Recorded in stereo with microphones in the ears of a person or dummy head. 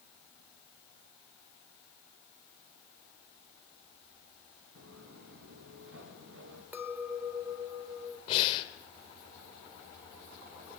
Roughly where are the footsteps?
Right.